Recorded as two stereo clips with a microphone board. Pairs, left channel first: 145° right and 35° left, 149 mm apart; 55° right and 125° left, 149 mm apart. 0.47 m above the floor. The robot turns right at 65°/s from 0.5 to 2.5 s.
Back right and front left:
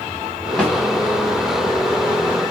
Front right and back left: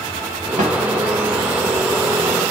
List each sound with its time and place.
0.6 s a snare drum: 130° left, 1.7 m; by 0.7 s 140° left, 1.7 m